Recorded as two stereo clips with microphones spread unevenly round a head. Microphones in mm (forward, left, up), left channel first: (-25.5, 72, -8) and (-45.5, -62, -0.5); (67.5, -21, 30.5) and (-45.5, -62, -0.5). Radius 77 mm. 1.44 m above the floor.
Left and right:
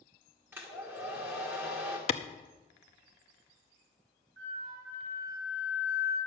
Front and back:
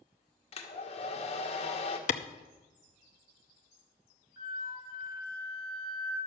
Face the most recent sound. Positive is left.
turn(degrees=-100)